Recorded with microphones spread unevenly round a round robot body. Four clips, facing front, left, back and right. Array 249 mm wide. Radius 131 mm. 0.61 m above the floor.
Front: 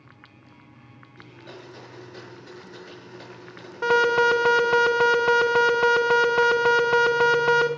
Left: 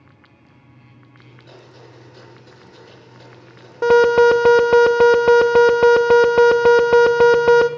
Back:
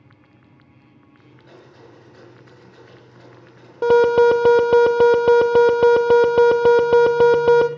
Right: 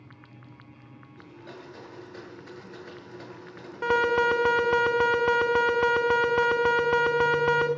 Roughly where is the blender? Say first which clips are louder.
Right 1 dB, front 4 dB; right.